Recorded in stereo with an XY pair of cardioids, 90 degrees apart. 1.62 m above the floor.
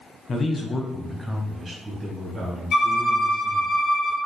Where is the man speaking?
50° left, 0.9 m; by 3.7 s 60° right, 2.0 m.